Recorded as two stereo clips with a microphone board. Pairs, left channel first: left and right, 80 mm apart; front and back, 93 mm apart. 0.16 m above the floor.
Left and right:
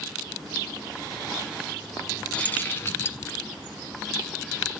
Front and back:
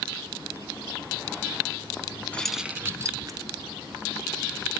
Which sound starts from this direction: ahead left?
Keys jangling, at 2.3 s.